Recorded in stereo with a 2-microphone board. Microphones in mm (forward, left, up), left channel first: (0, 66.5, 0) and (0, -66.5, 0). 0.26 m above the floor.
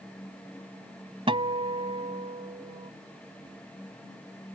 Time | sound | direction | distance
1.3 | a guitar | 45° right (ahead or behind) | ?